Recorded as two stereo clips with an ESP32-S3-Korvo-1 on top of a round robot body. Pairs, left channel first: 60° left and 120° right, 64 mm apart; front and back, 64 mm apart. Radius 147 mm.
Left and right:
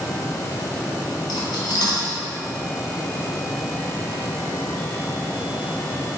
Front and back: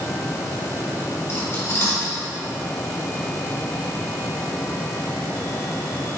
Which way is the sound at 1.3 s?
50° left.